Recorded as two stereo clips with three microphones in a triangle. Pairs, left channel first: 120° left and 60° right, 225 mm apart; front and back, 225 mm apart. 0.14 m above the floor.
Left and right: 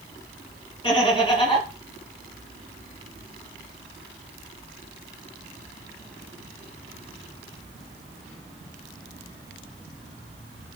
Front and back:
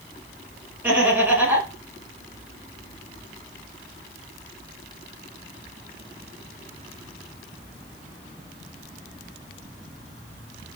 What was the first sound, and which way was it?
Laughter, 115° left.